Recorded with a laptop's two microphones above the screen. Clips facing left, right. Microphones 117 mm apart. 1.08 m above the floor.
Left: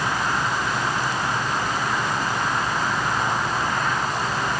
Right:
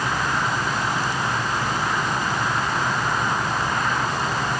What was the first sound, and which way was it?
Only background noise.